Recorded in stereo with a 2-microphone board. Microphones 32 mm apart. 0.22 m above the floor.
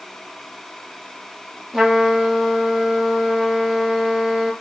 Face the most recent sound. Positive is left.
turn(degrees=-5)  # may be behind; listen again after turning